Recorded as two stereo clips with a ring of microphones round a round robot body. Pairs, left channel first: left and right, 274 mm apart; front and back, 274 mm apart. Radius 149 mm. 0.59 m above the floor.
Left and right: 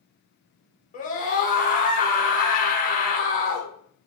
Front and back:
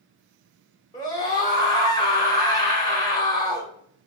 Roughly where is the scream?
Ahead left.